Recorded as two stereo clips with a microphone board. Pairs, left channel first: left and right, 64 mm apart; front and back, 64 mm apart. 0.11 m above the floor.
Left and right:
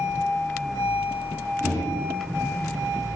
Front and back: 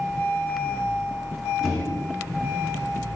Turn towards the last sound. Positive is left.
turn(degrees=-90)